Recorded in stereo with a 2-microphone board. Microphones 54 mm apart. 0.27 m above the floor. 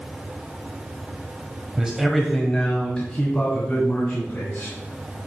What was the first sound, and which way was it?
A man speaking, 15° right (ahead or behind).